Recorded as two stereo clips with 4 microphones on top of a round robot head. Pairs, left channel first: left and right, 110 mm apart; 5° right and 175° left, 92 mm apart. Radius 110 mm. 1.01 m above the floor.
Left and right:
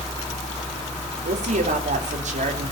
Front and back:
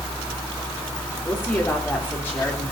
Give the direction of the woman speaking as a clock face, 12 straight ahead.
3 o'clock.